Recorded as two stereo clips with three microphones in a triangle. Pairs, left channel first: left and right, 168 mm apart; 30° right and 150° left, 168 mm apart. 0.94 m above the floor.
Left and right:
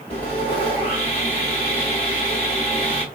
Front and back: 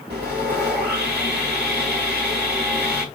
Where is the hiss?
No hiss in this recording.